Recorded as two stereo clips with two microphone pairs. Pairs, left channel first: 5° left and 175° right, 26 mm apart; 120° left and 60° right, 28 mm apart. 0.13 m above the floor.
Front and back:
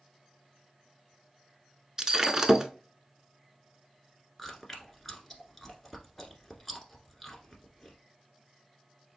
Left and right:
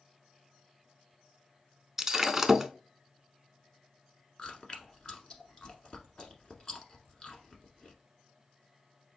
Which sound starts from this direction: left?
Chewing, at 4.4 s.